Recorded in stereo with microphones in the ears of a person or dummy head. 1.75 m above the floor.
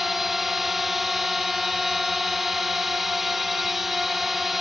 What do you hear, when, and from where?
0.0 s a drone: 5° left (ahead or behind)